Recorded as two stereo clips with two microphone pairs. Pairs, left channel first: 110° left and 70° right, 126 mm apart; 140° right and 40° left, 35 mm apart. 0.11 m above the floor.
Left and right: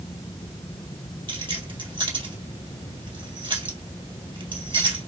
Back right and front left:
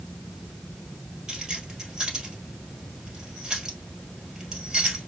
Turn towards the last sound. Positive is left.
turn(degrees=-30)